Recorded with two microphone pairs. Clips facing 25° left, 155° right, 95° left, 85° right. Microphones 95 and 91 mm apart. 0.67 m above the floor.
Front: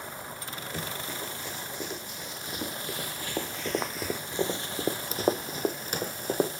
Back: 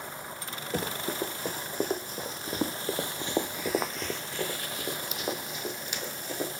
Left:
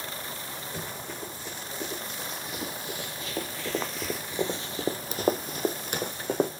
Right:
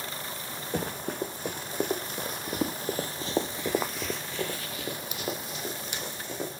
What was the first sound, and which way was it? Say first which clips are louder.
Running footsteps: back 7 dB, right 10 dB; 110° right.